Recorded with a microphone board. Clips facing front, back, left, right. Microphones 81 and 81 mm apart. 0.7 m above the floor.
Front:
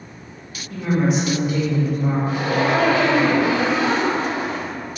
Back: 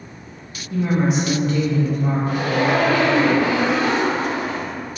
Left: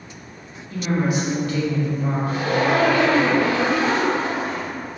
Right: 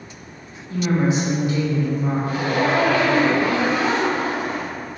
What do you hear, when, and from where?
0.7 s a woman speaking: 115° right, 1.0 m; by 3.2 s 5° left, 1.3 m
2.3 s a zipper: 55° left, 1.2 m